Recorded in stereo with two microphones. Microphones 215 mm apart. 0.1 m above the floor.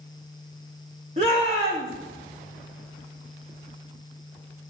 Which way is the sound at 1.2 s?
30° right (ahead or behind).